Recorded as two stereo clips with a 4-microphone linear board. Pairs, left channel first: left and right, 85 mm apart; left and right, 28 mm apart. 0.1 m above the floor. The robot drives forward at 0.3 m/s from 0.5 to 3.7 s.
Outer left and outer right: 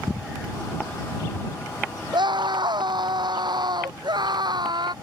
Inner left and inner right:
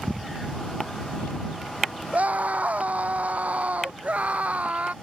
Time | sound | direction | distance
2.1 | a scream | 65° right (ahead or behind) | ?